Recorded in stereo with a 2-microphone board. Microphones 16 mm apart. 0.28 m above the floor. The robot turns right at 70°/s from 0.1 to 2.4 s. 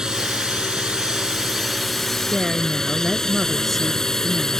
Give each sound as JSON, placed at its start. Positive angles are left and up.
{"t": 0.0, "sound": "a drone", "azimuth_deg": -125}
{"t": 2.3, "sound": "a woman speaking", "side_deg": 10}